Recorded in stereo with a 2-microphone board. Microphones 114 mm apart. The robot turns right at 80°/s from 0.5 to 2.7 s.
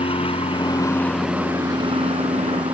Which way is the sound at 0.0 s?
120° left.